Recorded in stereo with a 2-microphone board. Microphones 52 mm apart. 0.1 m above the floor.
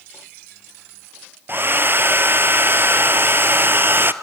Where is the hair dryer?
45° right (ahead or behind), 0.8 m.